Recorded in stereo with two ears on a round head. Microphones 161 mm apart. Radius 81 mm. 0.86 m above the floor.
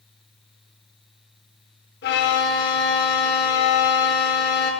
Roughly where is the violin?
Left.